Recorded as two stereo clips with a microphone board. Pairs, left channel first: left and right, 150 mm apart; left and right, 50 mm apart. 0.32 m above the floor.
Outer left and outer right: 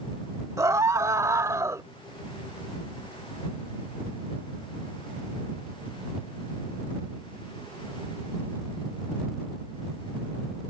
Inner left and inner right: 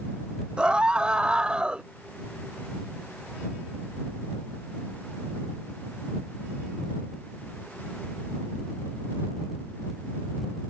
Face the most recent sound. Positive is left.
turn(degrees=-20)  # may be behind; listen again after turning